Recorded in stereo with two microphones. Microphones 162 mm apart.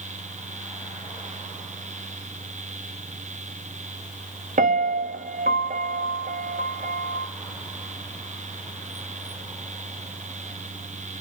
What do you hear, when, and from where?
4.6 s a piano: 60° right (ahead or behind), 0.6 m